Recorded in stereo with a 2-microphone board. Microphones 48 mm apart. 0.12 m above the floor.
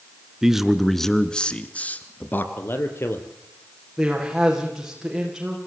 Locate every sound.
0.4 s a man speaking: 10° right (ahead or behind), 1.6 m; by 2.5 s 45° left (ahead or behind), 2.0 m
2.6 s a man speaking: 55° left (ahead or behind), 3 m
4.0 s a man speaking: 10° right (ahead or behind), 7.5 m